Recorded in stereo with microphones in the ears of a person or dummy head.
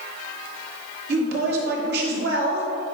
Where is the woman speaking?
60° right (ahead or behind), 2.5 m.